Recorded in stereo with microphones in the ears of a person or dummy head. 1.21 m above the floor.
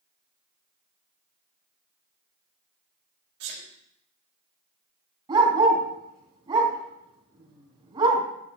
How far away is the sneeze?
About 2.5 m.